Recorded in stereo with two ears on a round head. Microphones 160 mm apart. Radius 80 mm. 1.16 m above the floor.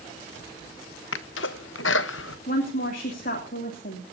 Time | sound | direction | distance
1.1 | a sneeze | 75° left (ahead or behind) | 1.1 m
2.5 | a woman speaking | 50° left (ahead or behind) | 3 m